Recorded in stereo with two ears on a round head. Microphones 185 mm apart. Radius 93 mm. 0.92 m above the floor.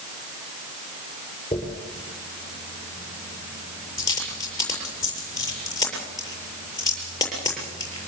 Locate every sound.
1.5 s a dropped coin: 20° left (ahead or behind), 7.5 m